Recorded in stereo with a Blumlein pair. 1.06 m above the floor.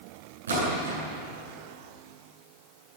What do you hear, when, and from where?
0.5 s a splash: 65° right, 9.5 m